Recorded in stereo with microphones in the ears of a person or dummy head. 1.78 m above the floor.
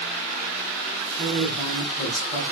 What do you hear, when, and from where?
1.2 s a woman speaking: 25° left (ahead or behind), 1.9 m